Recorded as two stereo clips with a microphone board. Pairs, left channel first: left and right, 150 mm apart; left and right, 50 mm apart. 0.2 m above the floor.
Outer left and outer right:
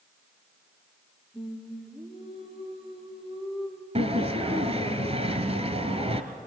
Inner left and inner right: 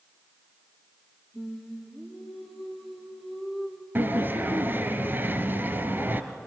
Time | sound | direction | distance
1.3 | singing | centre (ahead or behind) | 3 m
4.0 | a sliding door | 45° right (ahead or behind) | 1.3 m